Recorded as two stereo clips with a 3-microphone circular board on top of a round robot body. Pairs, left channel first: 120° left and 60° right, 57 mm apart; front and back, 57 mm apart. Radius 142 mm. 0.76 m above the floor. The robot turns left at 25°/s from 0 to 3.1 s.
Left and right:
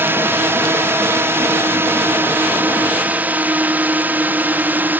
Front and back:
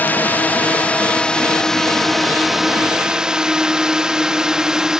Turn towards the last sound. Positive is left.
turn(degrees=-105)